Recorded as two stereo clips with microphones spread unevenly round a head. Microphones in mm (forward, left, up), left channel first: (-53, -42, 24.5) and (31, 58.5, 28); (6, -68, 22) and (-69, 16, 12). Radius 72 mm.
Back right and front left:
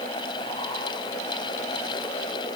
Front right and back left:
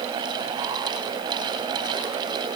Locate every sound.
Only background noise.